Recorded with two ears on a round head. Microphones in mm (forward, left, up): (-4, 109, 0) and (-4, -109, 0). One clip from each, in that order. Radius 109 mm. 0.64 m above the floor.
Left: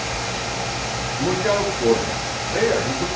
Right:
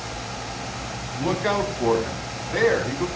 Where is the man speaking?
45° right (ahead or behind), 5 m; by 3.0 s 55° right (ahead or behind), 5 m.